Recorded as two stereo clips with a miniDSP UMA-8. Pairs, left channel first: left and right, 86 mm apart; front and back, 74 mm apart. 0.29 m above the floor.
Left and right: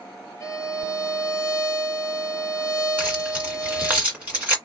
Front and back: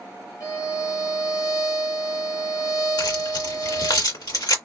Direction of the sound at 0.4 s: 35° left.